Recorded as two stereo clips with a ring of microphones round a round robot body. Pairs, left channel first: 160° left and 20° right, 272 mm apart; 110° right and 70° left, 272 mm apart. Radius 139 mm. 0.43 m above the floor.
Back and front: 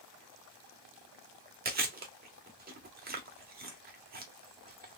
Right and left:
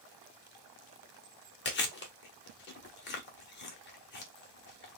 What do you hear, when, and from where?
1.6 s chewing: 70° right, 1.1 m